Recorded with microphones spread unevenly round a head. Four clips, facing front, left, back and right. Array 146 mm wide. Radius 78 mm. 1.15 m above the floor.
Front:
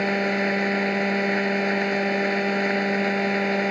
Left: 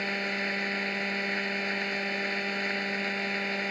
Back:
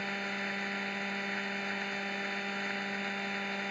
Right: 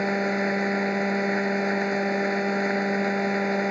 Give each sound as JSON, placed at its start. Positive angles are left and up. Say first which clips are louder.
{"t": 0.0, "sound": "a machine running", "louder": "right 8 dB, front 15 dB", "azimuth_deg": -30}